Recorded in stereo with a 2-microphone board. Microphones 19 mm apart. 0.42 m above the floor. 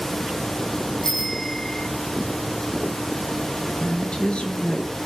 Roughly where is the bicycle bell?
Left.